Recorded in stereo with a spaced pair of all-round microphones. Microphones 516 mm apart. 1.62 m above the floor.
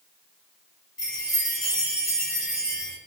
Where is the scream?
No scream in this recording.